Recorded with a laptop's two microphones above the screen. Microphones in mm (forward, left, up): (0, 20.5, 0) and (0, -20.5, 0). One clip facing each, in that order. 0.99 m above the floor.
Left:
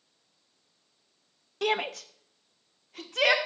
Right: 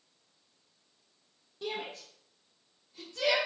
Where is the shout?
70° left (ahead or behind), 0.7 m; by 3.4 s 65° left (ahead or behind), 2 m.